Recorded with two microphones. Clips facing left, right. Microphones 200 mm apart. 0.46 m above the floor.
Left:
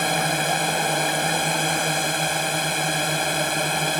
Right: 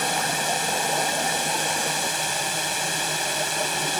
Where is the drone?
65° left (ahead or behind); by 4.0 s 60° left (ahead or behind).